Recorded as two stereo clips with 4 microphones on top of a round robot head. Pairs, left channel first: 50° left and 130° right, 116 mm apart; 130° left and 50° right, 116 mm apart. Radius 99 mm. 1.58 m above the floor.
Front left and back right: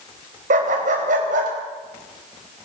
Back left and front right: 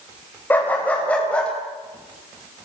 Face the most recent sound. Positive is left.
turn(degrees=-145)